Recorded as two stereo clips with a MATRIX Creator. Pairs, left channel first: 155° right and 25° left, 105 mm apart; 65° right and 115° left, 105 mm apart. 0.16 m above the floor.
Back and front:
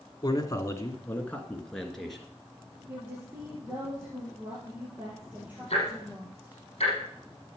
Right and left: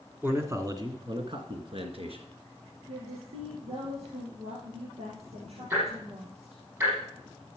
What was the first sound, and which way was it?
A man speaking, 175° left.